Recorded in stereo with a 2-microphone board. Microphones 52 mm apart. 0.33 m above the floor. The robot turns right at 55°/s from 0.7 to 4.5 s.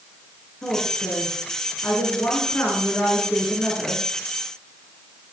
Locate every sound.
0.6 s a woman speaking: 35° left, 5.5 m; by 4.0 s 140° right, 5.5 m